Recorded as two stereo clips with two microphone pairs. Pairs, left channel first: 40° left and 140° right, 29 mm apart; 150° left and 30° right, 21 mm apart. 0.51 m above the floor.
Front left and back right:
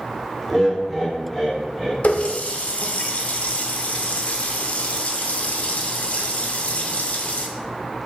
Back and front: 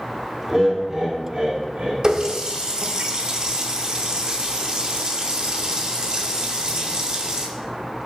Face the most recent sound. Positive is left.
turn(degrees=15)